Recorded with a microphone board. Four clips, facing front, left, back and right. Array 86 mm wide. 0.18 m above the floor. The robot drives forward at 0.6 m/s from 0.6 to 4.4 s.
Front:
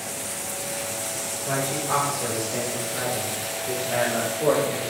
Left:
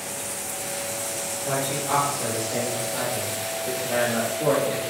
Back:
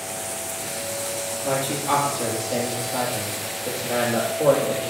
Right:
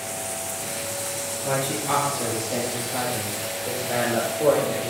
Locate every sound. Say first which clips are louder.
1.4 s a man speaking: right 1 dB, back 3 dB; 150° right, 5 m; by 4.9 s 160° right, 6.5 m